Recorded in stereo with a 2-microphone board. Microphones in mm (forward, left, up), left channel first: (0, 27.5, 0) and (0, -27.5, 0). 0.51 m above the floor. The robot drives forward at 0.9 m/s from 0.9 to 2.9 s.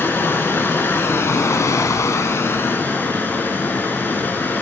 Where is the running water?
40° left (ahead or behind), 1.2 m.